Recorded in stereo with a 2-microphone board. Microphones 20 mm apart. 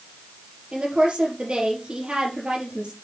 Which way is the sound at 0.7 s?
60° right (ahead or behind).